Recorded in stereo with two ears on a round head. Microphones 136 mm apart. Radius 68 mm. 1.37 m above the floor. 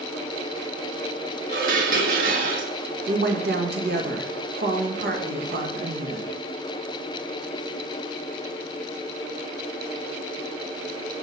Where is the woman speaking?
75° right (ahead or behind), 1.7 m.